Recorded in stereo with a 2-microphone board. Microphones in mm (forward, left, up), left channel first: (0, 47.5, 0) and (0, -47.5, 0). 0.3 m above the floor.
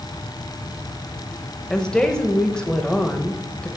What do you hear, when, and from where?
1.7 s a woman speaking: 5° left (ahead or behind), 1.0 m